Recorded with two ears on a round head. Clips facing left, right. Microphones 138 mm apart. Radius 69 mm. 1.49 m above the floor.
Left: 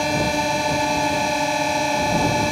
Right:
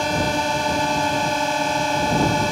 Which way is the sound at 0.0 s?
10° left (ahead or behind).